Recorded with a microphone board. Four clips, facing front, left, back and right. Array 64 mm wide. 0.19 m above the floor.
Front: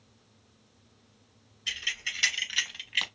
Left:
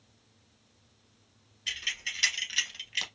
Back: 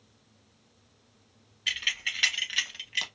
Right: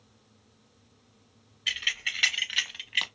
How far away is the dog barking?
I don't hear a dog barking.